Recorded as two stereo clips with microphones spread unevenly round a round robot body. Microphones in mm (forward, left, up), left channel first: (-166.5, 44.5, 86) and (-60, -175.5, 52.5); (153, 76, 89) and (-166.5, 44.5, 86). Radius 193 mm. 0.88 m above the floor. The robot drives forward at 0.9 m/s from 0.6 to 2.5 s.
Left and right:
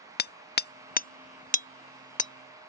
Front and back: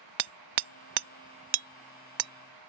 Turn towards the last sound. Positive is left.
turn(degrees=180)